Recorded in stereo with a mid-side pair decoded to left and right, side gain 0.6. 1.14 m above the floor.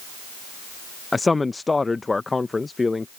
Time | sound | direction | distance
1.1 | a man speaking | 15° left | ?